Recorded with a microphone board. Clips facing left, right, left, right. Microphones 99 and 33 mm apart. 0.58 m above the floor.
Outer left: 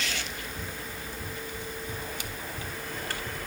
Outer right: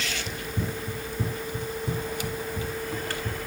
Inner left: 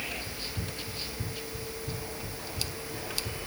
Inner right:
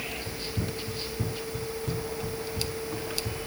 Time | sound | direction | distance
0.3 | running footsteps | 60° right (ahead or behind) | 1.2 m